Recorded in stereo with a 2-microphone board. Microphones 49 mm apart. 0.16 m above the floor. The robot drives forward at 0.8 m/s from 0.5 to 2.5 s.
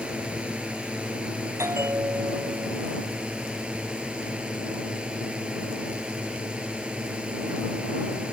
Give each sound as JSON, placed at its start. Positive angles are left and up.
{"t": 0.0, "sound": "a drone", "side_deg": -25}
{"t": 1.6, "sound": "a bell", "side_deg": -85}